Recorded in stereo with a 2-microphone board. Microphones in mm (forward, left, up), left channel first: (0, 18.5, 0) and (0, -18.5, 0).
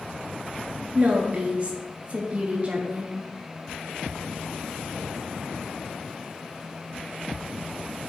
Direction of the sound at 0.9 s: 40° right (ahead or behind).